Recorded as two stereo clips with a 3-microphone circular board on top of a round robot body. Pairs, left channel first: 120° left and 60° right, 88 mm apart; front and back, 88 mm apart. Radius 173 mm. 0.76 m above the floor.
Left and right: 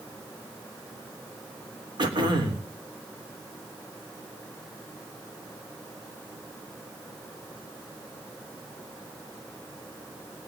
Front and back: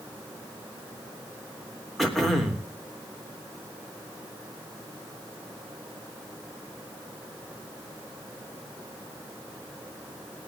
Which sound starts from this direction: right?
Throat clearing, at 2.0 s.